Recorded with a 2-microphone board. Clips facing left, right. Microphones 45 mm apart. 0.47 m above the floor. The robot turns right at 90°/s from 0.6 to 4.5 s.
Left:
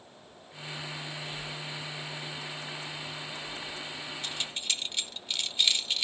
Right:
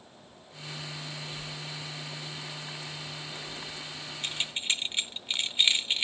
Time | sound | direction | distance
1.3 | breathing | 45° left (ahead or behind) | 5 m
4.2 | keys jangling | 50° right (ahead or behind) | 0.7 m